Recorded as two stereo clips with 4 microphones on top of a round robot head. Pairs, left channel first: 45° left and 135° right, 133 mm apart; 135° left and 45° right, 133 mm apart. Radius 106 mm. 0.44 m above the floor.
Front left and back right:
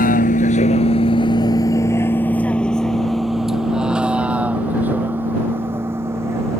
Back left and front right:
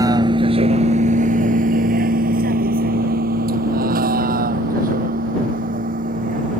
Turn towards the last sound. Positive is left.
turn(degrees=-65)